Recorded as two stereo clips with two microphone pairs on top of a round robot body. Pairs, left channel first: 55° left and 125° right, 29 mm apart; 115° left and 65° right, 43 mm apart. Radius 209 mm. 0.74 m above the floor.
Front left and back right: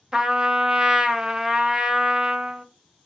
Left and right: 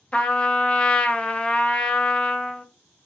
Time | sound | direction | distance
0.1 | a trumpet | 170° left | 0.7 m